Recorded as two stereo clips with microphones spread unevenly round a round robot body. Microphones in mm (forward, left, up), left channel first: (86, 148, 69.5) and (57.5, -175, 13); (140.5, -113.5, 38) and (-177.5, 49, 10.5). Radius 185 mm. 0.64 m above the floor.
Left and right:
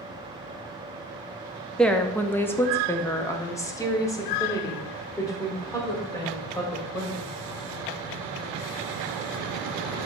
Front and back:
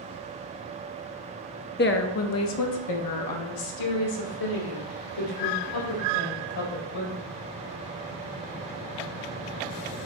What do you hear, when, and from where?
1.8 s a woman speaking: 25° right, 0.7 m; by 7.2 s 5° left, 3 m